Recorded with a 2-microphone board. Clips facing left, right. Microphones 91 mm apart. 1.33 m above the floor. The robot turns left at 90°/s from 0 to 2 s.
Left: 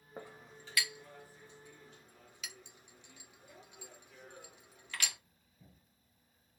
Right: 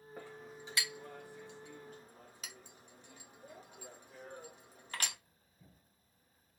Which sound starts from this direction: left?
A clink, at 0.2 s.